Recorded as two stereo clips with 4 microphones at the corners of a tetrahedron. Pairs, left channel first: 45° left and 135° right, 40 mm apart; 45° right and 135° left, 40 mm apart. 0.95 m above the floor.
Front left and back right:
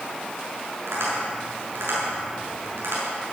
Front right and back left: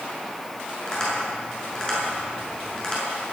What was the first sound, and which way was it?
Tapping, 120° right.